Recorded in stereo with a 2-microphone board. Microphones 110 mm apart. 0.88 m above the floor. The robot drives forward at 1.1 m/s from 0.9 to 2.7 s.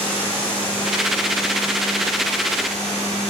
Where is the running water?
15° left (ahead or behind), 9.5 m; by 3.3 s 10° left (ahead or behind), 11 m.